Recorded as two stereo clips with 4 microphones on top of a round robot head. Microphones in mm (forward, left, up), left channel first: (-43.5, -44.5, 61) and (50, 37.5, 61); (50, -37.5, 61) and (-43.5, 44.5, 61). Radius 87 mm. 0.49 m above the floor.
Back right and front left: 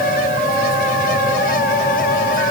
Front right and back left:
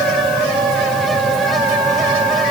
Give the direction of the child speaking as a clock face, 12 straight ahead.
No child speaking in this recording.